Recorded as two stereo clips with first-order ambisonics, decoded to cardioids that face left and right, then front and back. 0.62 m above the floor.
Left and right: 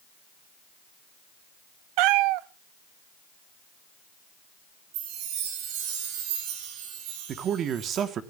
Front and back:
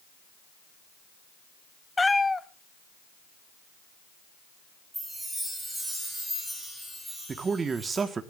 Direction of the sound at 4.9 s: 90° right.